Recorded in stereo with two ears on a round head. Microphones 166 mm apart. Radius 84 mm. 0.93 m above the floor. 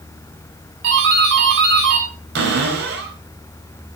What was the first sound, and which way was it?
A doorbell, 70° right (ahead or behind).